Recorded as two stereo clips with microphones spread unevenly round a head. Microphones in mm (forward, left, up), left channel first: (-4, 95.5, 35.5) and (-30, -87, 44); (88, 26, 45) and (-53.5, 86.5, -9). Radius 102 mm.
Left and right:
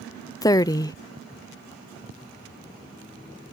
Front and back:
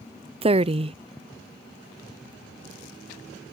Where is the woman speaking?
150° left.